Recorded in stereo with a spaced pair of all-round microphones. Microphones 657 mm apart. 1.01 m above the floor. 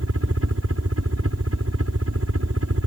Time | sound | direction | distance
0.0 | a helicopter | 20° right (ahead or behind) | ?